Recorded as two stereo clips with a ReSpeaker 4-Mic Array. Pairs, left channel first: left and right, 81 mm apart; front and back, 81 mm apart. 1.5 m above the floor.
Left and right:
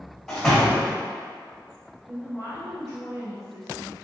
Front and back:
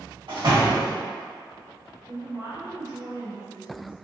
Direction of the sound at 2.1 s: 135° right.